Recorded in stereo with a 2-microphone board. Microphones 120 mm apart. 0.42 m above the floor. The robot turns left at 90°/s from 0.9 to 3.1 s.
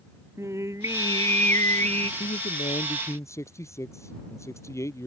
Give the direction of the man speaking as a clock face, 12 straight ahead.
9 o'clock.